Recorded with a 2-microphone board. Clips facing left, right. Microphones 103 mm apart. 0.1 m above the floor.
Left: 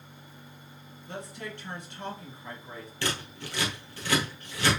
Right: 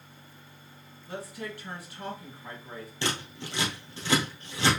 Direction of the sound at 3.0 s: 20° right (ahead or behind).